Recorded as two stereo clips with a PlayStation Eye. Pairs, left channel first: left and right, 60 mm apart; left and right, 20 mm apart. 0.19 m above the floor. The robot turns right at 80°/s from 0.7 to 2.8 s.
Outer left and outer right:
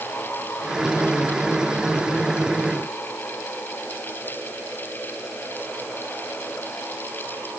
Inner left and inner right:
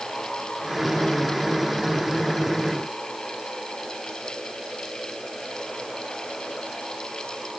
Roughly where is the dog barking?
I don't hear a dog barking.